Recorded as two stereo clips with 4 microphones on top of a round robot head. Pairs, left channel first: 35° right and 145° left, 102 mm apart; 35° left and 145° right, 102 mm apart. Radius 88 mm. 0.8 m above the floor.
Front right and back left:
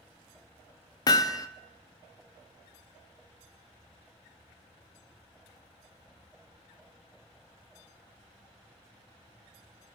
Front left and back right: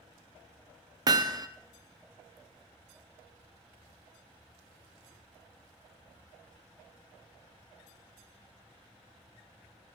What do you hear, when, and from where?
1.1 s hammering: 90° right, 0.7 m